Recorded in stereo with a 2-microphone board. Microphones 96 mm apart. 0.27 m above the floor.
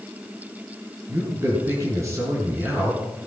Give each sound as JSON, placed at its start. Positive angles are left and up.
{"t": 1.1, "sound": "a man speaking", "side_deg": -30, "distance_m": 4.5}